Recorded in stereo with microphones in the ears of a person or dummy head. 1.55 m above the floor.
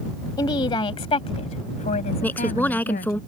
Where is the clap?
I don't hear a clap.